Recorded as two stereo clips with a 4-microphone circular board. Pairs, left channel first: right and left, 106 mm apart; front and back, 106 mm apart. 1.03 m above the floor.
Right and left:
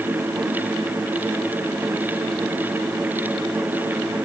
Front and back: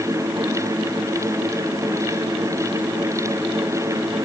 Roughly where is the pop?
No pop in this recording.